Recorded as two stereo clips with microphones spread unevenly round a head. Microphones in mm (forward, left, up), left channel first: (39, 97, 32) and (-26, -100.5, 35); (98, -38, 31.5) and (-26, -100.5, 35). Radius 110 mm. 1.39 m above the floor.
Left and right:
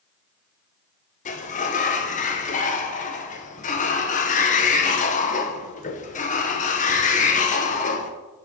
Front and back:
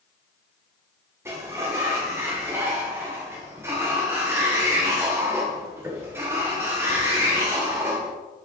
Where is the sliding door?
130° left, 0.9 m.